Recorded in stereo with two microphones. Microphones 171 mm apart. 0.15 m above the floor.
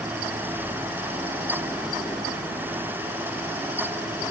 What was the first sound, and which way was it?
Only background noise.